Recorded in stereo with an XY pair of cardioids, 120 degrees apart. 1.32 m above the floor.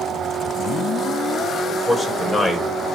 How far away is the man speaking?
About 6 m.